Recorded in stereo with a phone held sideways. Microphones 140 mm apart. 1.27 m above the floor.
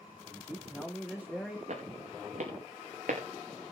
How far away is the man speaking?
About 3 m.